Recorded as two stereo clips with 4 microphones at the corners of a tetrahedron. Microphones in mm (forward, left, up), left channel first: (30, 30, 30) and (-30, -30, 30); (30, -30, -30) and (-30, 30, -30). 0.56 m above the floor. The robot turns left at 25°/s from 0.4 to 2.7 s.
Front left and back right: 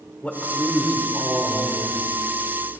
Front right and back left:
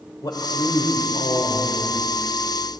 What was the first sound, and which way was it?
A man speaking, 25° right.